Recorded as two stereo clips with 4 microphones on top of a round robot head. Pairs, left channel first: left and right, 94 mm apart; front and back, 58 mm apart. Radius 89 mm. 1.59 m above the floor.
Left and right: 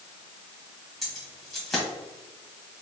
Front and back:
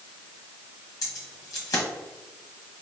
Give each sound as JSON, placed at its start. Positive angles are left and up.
{"t": 1.0, "sound": "keys jangling", "azimuth_deg": 0, "distance_m": 1.0}